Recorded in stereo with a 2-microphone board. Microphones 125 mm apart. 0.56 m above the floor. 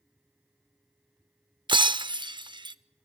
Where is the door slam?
No door slam in this recording.